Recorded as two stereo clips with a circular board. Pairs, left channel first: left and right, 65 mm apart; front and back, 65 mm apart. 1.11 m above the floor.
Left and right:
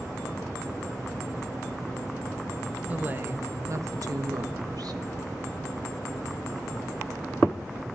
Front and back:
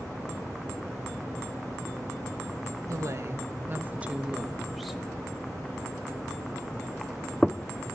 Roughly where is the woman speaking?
Behind right.